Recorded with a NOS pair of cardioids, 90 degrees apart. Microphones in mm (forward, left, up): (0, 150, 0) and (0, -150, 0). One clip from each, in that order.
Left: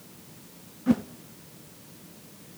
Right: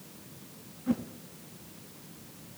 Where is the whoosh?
35° left, 0.8 m.